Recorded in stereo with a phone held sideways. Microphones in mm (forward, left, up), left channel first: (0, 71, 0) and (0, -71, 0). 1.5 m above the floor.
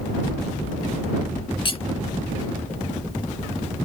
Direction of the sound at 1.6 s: 40° left (ahead or behind).